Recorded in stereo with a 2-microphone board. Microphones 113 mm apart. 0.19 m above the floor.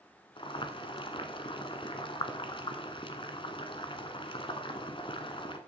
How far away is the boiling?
About 1.3 m.